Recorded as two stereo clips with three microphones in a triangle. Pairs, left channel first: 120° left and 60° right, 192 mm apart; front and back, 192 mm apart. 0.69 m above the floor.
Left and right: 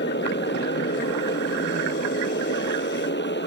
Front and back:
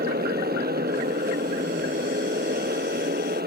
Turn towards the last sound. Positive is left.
turn(degrees=145)